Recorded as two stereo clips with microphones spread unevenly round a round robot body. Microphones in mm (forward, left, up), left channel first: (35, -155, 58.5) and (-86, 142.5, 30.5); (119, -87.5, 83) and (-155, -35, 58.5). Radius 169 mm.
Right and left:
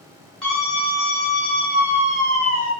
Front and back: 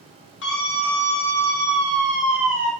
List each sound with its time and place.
0.4 s a scream: 25° left, 1.4 m; by 2.7 s 95° left, 1.6 m